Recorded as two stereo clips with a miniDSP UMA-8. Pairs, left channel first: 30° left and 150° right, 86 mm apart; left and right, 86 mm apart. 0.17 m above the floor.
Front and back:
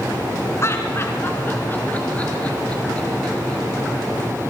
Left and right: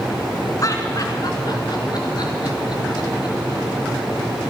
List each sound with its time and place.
0.6 s laughter: 70° left, 2.5 m; by 3.6 s 110° left, 4.5 m